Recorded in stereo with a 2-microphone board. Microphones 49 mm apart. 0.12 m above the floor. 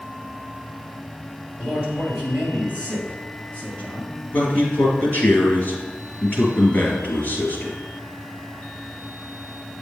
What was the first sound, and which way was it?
A man speaking, 15° right (ahead or behind).